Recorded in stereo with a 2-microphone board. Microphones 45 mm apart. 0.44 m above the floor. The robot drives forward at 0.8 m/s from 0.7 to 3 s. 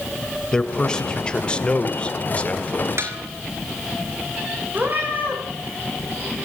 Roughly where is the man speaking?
Centre.